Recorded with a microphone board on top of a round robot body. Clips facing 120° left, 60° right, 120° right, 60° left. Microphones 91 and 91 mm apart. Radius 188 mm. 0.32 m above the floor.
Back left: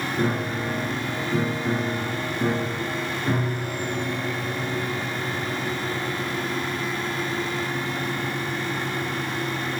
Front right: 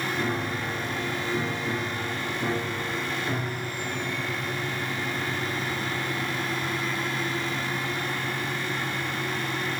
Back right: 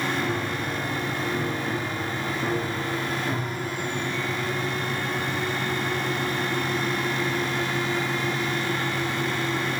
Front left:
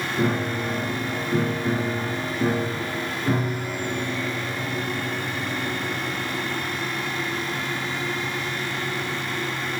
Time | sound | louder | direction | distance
0.2 | a piano | back left 4 dB, front left 3 dB | 85° left | 5 m